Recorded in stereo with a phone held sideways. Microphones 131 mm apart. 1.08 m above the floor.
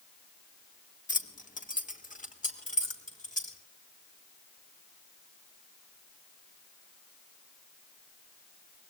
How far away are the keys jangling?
About 1.4 m.